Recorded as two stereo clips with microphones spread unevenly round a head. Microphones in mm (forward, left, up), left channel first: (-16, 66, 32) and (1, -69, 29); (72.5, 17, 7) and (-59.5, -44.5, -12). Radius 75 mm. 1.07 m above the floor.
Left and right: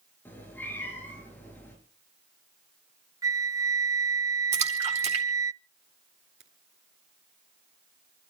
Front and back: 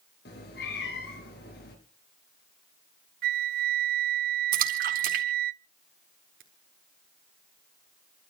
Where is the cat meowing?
20° left, 4.5 m.